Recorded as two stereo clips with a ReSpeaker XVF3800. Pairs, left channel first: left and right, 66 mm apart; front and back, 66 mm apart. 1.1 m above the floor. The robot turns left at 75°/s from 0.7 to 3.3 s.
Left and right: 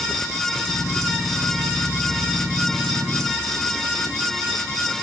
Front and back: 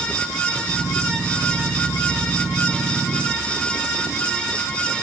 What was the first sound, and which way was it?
Only background noise.